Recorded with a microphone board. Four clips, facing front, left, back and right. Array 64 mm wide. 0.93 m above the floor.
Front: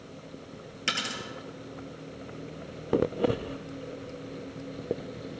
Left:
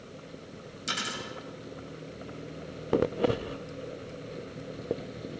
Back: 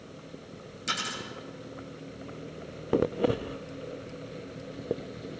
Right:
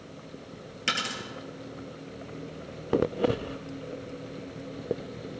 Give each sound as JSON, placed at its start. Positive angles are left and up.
{"t": 0.9, "sound": "a dropped coin", "azimuth_deg": -50, "distance_m": 4.0}